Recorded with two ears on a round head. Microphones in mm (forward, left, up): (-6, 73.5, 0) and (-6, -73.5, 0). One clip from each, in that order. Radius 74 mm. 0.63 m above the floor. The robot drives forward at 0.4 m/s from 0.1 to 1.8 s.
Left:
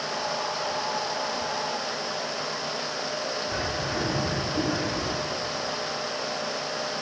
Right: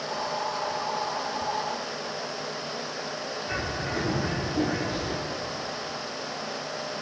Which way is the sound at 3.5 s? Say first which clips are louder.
Left 2 dB; 50° right (ahead or behind).